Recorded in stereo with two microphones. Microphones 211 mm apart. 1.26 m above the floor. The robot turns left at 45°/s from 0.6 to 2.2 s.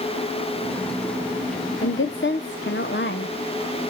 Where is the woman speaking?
75° left (ahead or behind), 0.7 m; by 3.4 s 60° left (ahead or behind), 0.7 m.